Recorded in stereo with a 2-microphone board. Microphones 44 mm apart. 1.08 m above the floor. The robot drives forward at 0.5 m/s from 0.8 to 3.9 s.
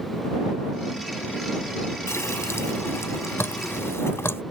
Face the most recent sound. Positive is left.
turn(degrees=75)  # may be behind; listen again after turning